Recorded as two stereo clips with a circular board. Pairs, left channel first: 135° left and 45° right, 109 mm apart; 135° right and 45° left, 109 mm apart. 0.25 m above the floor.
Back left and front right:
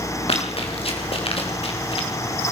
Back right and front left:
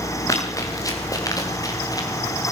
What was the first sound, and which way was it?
Running footsteps, 165° left.